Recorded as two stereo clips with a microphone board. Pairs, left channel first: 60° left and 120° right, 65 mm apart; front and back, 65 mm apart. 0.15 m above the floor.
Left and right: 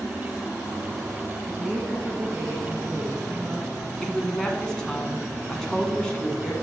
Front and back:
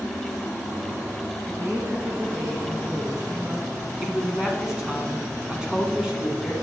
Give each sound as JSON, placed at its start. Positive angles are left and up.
{"t": 1.5, "sound": "a woman speaking", "azimuth_deg": 175, "distance_m": 1.5}
{"t": 4.0, "sound": "a woman speaking", "azimuth_deg": 125, "distance_m": 1.6}